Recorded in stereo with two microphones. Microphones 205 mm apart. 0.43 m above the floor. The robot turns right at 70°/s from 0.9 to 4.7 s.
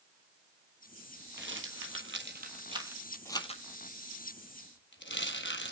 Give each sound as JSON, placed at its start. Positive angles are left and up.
{"t": 1.4, "sound": "a rattle", "side_deg": -60, "distance_m": 1.6}